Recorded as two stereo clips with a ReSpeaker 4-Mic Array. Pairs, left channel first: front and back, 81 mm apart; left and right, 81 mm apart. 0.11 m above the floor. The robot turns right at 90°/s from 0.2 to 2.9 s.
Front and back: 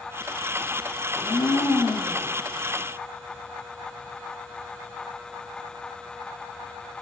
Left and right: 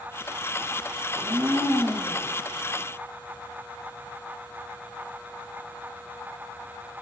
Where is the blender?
60° right, 1.5 m; by 2.3 s 40° left, 1.5 m.